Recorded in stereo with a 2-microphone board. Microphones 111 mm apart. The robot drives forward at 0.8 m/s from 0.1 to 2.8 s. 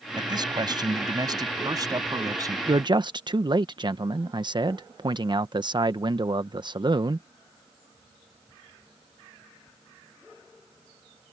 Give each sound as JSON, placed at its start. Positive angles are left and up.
{"t": 0.2, "sound": "a man speaking", "side_deg": -40}
{"t": 2.7, "sound": "a man speaking", "side_deg": -45}